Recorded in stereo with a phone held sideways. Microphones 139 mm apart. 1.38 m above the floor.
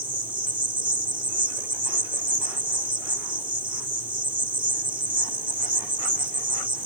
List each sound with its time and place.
0.0 s an insect: 40° right (ahead or behind)